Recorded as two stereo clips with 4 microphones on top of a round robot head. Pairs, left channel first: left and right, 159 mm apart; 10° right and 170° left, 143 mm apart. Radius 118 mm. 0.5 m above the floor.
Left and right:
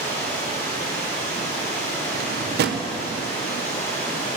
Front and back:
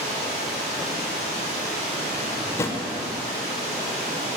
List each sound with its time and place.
0.0 s running water: 135° left, 5 m
2.1 s a drawer: 85° right, 0.9 m